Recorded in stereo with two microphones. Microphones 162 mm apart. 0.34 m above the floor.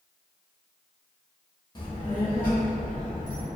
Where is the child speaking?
30° left (ahead or behind), 0.6 m; by 3.5 s 70° left (ahead or behind), 1.8 m.